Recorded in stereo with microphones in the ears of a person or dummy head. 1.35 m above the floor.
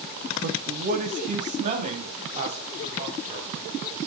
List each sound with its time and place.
0.4 s a man speaking: 55° right (ahead or behind), 1.2 m; by 3.5 s 35° right (ahead or behind), 5 m